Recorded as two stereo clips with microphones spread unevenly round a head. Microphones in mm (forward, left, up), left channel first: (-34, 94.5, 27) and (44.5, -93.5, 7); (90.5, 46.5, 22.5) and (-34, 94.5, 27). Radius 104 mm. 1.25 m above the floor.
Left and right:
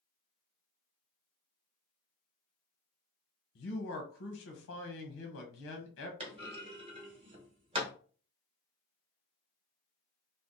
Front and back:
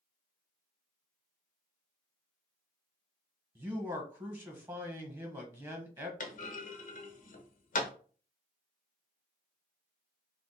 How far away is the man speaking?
About 0.9 m.